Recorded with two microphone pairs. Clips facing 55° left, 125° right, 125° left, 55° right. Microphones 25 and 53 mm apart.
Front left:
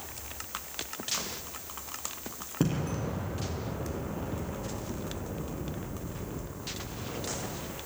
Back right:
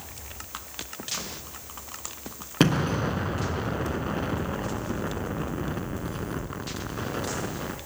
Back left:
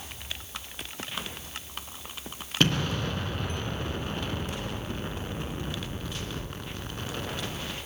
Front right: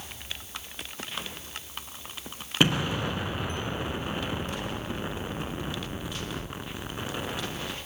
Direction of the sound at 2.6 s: 130° right.